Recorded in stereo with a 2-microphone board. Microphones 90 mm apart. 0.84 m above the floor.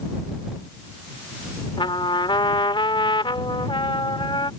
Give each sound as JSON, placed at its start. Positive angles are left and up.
{"t": 1.8, "sound": "a trumpet", "side_deg": 65}